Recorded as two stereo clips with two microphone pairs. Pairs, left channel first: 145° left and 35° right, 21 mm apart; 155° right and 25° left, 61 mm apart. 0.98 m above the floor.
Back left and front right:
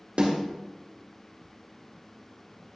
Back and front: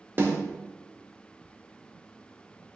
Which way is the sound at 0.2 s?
20° right.